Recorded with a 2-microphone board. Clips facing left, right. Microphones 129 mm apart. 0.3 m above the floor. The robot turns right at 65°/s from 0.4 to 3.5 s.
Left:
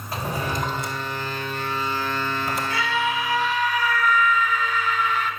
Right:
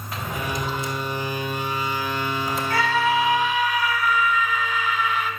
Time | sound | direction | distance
0.1 | a drawer | 35° left (ahead or behind) | 2.5 m
2.7 | a scream | 65° right | 3 m